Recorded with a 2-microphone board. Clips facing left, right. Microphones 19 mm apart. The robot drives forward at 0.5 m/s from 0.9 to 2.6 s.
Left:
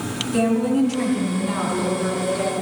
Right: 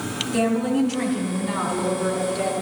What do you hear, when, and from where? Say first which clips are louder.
0.3 s a woman speaking: left 2 dB; 5° right (ahead or behind), 3.5 m